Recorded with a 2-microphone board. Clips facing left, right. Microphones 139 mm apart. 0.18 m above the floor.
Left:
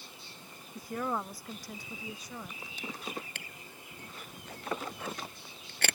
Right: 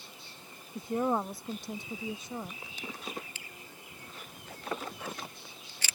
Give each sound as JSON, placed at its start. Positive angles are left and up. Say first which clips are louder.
{"t": 0.8, "sound": "a woman speaking", "louder": "right 5 dB", "side_deg": -25}
{"t": 3.4, "sound": "a camera shutter", "louder": "left 1 dB", "side_deg": 65}